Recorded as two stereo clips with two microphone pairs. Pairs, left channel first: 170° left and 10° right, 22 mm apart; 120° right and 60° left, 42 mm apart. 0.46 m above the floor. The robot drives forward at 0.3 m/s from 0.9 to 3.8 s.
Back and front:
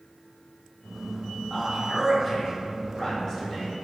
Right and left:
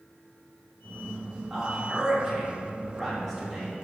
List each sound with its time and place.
1.5 s a man speaking: 105° left, 0.9 m; by 3.7 s 155° left, 1.2 m